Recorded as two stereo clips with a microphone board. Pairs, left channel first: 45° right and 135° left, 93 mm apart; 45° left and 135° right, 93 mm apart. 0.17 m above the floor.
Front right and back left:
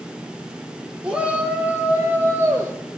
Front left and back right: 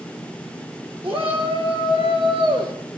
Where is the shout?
145° right, 3.5 m; by 2.7 s 165° right, 3 m.